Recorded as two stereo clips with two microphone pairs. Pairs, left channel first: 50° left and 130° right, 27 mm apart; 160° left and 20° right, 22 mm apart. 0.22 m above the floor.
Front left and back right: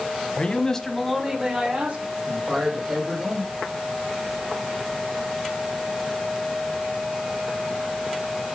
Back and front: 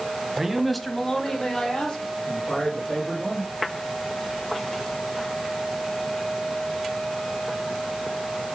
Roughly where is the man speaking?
Ahead left.